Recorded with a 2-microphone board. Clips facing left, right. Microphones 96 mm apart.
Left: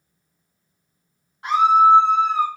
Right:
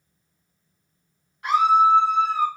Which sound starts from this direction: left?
A scream, at 1.4 s.